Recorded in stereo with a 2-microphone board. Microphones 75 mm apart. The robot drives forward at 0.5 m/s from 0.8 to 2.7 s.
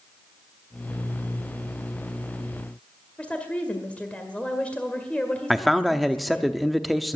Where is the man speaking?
Centre (ahead or behind), 0.8 m.